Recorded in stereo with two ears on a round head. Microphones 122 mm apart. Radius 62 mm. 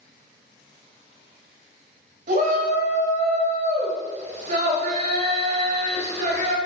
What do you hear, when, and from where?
2.3 s a shout: 50° right (ahead or behind), 1.8 m